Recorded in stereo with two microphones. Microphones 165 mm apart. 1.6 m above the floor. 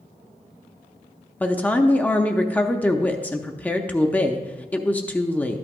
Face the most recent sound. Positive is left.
turn(degrees=10)  # may be behind; listen again after turning